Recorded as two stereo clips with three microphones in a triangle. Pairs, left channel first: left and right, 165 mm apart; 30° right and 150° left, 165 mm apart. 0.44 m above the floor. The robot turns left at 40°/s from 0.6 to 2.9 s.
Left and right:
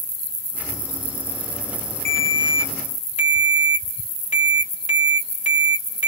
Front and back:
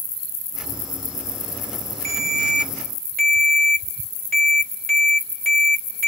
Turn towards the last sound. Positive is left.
turn(degrees=130)